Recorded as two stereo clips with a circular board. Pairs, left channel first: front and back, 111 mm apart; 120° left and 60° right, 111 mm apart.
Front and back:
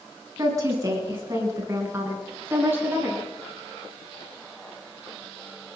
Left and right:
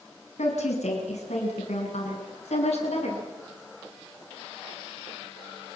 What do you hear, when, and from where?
0.4 s a woman speaking: 120° left, 8.5 m; by 3.2 s 110° left, 10.5 m